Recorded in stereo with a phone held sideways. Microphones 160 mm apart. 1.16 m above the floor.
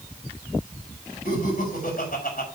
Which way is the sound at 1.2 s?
60° left (ahead or behind).